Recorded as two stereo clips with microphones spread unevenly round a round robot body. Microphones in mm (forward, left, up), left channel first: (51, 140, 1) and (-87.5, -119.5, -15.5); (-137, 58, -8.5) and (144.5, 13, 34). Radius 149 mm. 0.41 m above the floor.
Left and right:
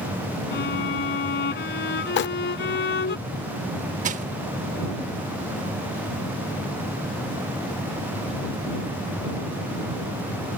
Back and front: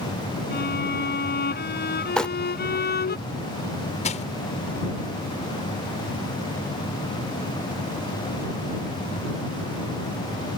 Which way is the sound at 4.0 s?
160° right.